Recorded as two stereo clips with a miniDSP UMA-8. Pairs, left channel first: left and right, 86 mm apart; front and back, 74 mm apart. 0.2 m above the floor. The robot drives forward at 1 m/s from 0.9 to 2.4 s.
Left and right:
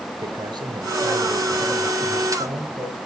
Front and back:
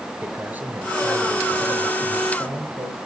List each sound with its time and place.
0.2 s a man speaking: 120° right, 3.5 m; by 3.0 s 140° right, 4 m